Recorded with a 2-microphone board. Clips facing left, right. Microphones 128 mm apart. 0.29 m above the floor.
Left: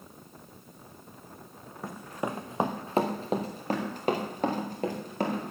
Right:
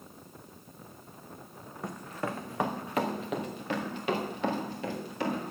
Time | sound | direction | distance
1.8 | running footsteps | centre (ahead or behind) | 1.1 m